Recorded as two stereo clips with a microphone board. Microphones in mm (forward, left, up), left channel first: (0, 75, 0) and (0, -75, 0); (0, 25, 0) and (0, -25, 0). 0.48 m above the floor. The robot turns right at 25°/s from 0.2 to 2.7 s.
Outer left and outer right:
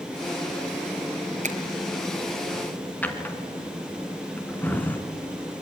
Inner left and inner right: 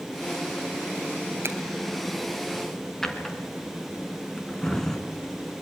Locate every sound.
1.4 s a finger snap: 55° right (ahead or behind), 3 m; by 1.6 s 50° right (ahead or behind), 3 m
3.0 s a drawer: 10° left (ahead or behind), 2.5 m